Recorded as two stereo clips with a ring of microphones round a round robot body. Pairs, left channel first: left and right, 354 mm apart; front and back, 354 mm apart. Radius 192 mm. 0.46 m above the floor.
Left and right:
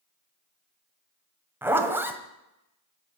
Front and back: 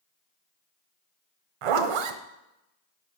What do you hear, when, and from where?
1.6 s a zipper: 175° right, 1.2 m